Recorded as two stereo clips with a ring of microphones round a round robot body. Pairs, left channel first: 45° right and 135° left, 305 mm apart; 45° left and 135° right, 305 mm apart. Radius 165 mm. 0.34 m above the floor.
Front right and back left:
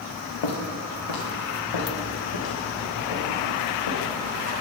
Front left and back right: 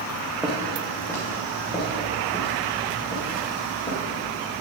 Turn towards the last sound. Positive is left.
turn(degrees=-20)